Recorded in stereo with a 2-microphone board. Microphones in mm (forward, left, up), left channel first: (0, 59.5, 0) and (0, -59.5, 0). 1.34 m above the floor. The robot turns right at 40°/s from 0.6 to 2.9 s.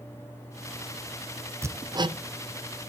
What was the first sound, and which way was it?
Hammering, 20° right (ahead or behind).